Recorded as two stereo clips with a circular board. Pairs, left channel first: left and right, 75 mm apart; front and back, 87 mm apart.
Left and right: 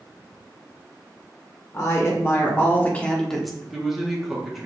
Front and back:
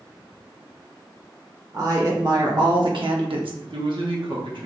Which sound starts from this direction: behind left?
A woman speaking, at 1.7 s.